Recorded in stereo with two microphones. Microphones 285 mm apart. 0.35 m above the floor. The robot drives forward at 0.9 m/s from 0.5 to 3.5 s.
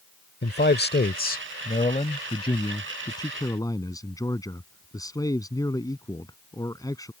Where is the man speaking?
35° left (ahead or behind); by 7.1 s 15° left (ahead or behind).